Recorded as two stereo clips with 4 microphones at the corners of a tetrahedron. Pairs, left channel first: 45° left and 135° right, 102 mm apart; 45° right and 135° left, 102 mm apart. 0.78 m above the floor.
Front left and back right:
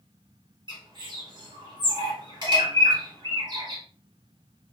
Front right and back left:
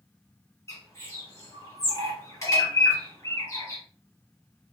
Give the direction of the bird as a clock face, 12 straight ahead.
3 o'clock.